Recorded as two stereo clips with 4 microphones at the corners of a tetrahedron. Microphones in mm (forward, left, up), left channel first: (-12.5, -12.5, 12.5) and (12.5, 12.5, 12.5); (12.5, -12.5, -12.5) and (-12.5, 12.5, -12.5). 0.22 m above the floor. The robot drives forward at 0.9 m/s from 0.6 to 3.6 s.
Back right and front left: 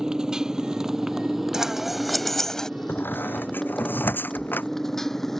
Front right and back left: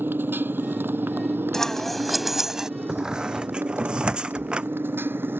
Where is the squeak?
150° right; by 4.7 s 160° right.